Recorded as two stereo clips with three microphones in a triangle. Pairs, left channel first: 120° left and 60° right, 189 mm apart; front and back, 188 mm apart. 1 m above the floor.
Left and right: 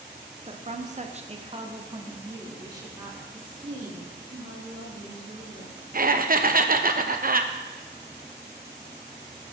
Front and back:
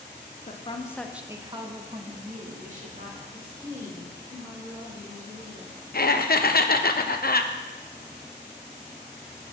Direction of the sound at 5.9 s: 25° right.